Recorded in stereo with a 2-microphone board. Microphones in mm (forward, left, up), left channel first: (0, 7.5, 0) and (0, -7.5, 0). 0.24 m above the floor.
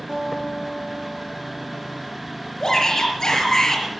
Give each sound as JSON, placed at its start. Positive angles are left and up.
{"t": 0.1, "sound": "a guitar", "side_deg": -40, "distance_m": 3.5}
{"t": 2.6, "sound": "a shout", "side_deg": 40, "distance_m": 4.5}